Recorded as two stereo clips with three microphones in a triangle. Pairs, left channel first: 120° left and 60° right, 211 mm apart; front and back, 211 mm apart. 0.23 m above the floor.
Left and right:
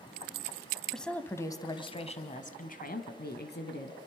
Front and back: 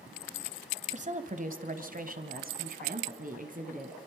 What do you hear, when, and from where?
0.9 s a woman speaking: 150° right, 1.3 m; by 4.0 s 135° left, 2 m